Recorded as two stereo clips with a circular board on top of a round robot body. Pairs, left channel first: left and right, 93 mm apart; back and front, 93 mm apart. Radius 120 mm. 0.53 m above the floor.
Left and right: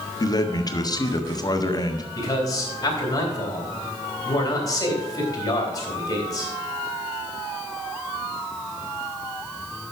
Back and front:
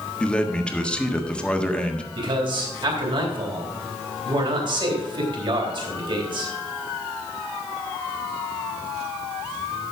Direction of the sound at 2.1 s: 40° left.